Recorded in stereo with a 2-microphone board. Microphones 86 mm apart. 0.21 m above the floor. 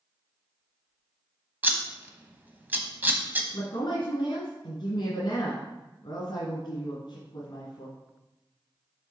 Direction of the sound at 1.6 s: 20° right (ahead or behind).